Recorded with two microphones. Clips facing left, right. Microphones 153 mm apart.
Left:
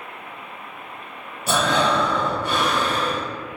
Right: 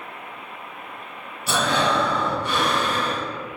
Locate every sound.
1.5 s breathing: 45° left (ahead or behind), 0.7 m